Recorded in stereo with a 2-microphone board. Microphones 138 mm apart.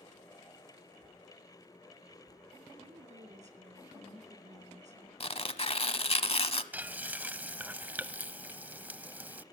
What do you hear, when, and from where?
2.8 s a woman speaking: 60° right (ahead or behind), 3.5 m
5.2 s tearing paper: 45° left (ahead or behind), 0.9 m
6.7 s frying: 15° right (ahead or behind), 0.6 m